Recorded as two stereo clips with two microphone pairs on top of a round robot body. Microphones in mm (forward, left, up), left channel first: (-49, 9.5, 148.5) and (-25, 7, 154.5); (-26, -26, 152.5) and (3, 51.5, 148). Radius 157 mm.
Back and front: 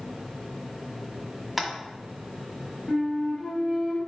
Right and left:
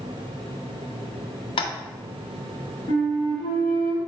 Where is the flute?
130° right, 1.7 m.